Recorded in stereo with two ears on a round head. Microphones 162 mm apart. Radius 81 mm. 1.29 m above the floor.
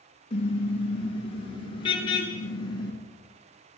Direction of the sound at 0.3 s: 30° left (ahead or behind).